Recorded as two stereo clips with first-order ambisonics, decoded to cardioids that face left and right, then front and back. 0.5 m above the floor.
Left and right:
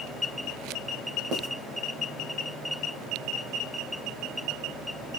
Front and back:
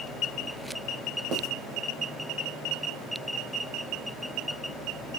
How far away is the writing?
About 0.8 m.